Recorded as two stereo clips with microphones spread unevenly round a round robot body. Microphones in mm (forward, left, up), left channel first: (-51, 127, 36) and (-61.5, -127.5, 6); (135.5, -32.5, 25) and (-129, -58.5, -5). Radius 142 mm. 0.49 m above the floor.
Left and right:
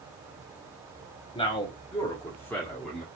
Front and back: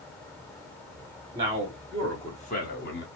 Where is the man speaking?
150° left, 0.9 m; by 3.1 s 10° right, 1.0 m.